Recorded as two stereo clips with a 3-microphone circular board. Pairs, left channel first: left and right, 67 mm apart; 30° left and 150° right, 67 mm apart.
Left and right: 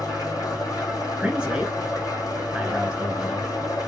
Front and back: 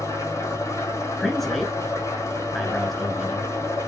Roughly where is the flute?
No flute in this recording.